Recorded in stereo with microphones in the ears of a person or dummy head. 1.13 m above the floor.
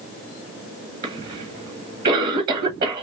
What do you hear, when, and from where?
1.0 s a cough: 45° right (ahead or behind), 1.2 m